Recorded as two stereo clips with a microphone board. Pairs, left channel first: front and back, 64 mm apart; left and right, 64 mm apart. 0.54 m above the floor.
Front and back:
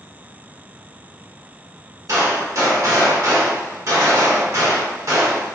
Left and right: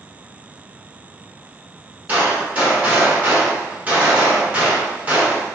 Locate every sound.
2.1 s a gunshot: 155° right, 0.9 m